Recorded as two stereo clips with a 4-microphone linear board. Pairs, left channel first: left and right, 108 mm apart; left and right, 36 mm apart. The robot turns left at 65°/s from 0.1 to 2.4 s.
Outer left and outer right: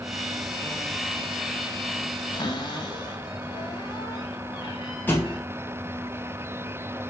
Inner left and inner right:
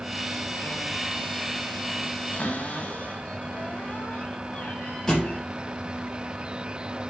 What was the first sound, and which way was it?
A cupboard door, 45° left (ahead or behind).